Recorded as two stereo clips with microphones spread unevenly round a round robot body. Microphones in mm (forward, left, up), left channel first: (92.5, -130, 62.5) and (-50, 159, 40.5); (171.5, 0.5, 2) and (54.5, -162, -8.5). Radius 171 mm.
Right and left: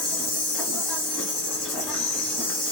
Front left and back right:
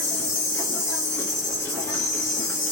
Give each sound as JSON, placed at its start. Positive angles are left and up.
{"t": 0.0, "sound": "an insect", "azimuth_deg": -5, "distance_m": 1.8}